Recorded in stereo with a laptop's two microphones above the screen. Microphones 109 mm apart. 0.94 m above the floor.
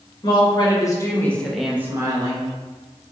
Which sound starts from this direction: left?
A woman speaking, at 0.2 s.